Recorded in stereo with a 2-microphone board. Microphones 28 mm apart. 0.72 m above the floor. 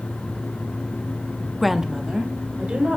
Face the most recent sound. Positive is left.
turn(degrees=-50)  # may be behind; listen again after turning